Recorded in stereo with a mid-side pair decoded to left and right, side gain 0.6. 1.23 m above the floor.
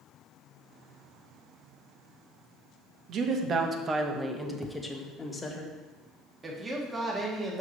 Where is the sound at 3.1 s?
55° right, 1.5 m; by 5.6 s 25° left, 1.8 m.